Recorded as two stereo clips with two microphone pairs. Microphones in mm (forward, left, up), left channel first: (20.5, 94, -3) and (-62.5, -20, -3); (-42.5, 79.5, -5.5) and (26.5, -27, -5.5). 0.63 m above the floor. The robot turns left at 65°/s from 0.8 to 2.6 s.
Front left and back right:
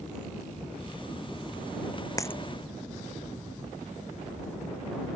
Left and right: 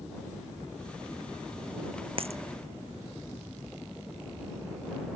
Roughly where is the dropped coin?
Ahead.